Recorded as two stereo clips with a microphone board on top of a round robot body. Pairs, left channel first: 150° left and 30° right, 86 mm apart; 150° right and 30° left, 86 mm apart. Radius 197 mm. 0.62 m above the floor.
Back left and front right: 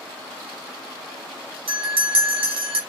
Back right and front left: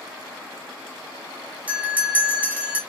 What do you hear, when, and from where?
1.7 s a bell: 45° right, 0.6 m